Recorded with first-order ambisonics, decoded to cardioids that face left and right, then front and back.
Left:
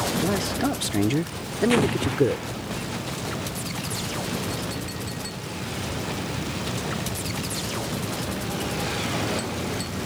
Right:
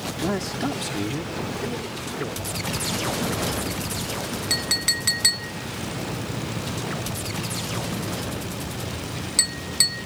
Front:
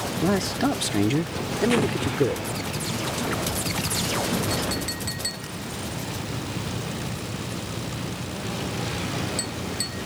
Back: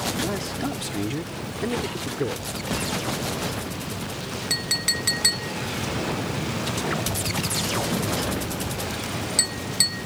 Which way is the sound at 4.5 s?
120° right.